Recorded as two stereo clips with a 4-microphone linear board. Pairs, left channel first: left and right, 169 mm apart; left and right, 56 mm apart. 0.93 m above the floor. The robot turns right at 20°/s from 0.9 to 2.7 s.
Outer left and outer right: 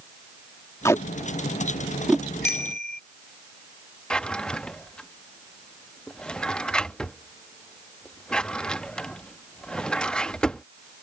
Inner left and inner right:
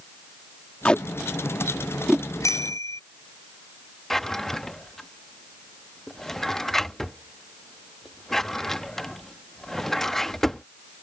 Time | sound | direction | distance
0.8 | tape being pulled | 20° left (ahead or behind) | ?
2.4 | a bicycle bell | 85° left | ?
4.1 | a drawer | 5° left (ahead or behind) | ?